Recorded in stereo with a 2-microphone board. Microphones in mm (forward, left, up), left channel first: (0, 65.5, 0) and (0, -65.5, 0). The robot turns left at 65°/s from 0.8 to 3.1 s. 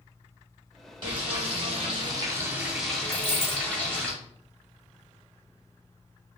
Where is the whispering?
I don't hear whispering.